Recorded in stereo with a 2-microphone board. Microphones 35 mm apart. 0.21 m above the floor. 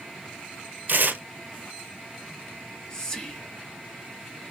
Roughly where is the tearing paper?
Right.